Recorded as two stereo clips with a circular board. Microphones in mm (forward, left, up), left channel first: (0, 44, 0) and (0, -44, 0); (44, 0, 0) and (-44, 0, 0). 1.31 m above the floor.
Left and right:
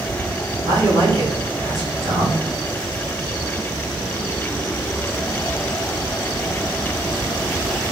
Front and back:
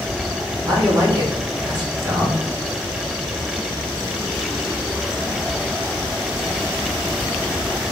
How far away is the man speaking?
About 2 m.